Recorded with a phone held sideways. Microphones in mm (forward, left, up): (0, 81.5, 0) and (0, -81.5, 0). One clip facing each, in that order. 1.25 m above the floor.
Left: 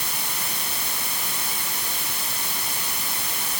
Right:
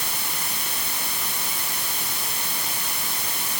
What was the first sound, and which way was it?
Only background noise.